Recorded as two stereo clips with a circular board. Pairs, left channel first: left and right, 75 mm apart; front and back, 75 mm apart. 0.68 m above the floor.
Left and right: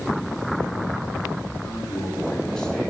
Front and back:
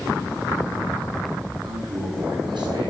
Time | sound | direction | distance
1.6 | a man speaking | 170° left | 8 m